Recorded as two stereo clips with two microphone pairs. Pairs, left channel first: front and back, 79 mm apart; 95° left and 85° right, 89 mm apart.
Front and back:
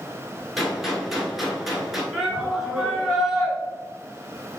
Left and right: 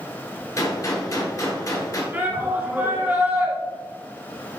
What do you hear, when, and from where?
0.6 s a gunshot: 95° left, 1.1 m
2.1 s a shout: 95° right, 1.6 m